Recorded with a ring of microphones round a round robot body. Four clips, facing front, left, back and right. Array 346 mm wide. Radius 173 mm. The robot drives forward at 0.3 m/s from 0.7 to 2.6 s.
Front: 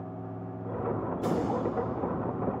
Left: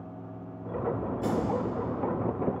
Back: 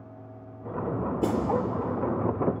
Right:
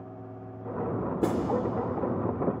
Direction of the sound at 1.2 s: 130° right.